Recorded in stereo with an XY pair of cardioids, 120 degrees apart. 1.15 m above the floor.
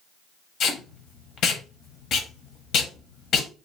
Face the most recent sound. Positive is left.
turn(degrees=65)